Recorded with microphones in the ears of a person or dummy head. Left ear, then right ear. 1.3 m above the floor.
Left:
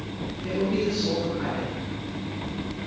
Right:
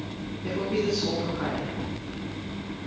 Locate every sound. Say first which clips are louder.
0.4 s a man speaking: left 1 dB; 20° right (ahead or behind), 2.5 m